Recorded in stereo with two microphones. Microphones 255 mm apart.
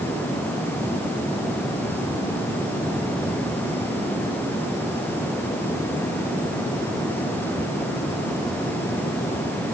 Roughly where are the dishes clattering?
No dishes clattering in this recording.